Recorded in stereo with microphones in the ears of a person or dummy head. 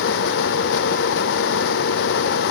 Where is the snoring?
I don't hear snoring.